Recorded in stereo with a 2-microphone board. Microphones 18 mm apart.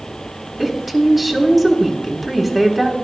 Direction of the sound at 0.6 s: 10° right (ahead or behind).